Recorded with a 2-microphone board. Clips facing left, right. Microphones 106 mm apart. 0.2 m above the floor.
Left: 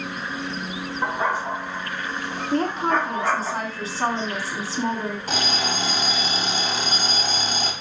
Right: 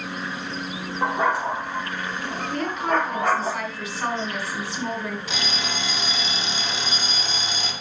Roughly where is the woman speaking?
Left.